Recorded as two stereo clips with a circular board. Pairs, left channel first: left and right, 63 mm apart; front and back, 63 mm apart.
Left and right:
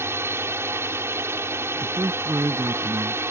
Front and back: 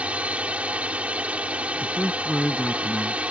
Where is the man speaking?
75° right.